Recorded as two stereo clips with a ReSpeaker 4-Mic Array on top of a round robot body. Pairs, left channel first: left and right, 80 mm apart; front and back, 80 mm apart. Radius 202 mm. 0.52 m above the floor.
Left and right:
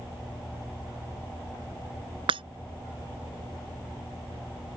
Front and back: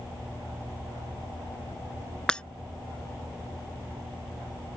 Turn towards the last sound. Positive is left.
turn(degrees=-80)